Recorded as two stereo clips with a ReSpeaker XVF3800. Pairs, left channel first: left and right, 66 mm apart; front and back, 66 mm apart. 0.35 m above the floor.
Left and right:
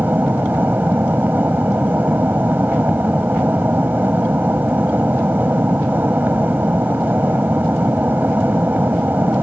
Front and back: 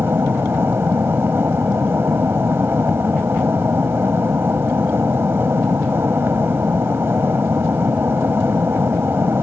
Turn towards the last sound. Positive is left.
turn(degrees=-140)